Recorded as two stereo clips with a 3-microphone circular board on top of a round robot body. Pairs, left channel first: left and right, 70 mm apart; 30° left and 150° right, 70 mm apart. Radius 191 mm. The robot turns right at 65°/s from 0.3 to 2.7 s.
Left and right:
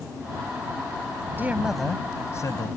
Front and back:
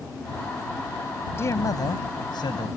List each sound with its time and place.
1.4 s a man speaking: 25° right; by 2.7 s 60° left